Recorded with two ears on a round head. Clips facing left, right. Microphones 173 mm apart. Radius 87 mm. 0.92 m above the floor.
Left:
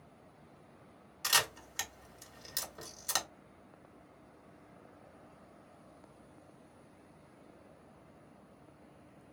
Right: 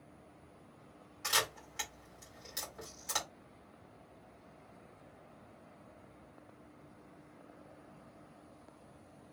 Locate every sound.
1.2 s a camera shutter: 45° left (ahead or behind), 1.4 m